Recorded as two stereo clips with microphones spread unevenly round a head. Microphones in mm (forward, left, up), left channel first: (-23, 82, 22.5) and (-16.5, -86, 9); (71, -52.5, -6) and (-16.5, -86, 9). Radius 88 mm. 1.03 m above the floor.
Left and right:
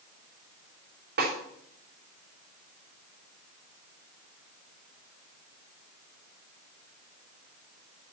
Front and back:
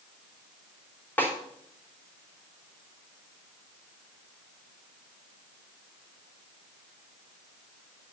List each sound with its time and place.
1.2 s a snare drum: 50° right, 3.5 m